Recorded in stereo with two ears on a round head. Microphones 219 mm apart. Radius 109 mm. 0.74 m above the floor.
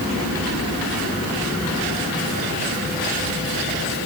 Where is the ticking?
No ticking in this recording.